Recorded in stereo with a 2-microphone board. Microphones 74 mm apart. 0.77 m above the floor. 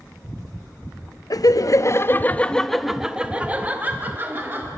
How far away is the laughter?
About 0.8 m.